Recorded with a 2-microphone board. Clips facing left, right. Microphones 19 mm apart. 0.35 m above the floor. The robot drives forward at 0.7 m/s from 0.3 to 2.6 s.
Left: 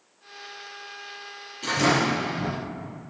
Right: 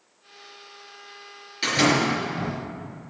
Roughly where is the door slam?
Right.